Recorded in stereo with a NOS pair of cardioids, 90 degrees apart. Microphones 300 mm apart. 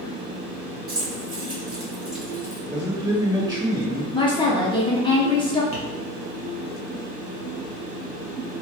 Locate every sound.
0.9 s keys jangling: 30° right, 2.0 m; by 2.6 s 15° left, 1.3 m
2.7 s a man speaking: 15° right, 1.5 m
4.1 s a woman speaking: 15° left, 0.7 m
5.7 s tapping: 20° left, 1.5 m